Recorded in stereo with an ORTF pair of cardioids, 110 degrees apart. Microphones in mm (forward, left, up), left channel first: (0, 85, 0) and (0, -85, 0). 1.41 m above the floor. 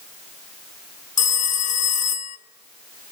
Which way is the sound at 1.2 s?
45° left.